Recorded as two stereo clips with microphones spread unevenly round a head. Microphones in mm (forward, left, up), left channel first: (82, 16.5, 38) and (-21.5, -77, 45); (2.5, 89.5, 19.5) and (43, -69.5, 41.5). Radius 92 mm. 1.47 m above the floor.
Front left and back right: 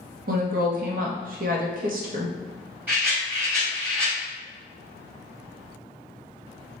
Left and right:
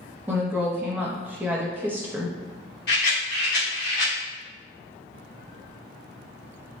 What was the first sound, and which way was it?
A woman speaking, 160° right.